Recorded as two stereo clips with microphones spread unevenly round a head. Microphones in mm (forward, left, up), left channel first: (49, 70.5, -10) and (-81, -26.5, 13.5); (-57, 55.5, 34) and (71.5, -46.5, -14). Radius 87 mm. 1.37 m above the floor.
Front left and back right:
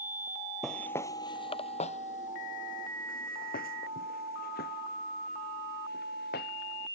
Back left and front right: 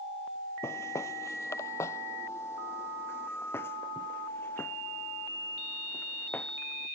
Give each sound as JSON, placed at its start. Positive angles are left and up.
{"t": 0.6, "sound": "footsteps", "azimuth_deg": 140}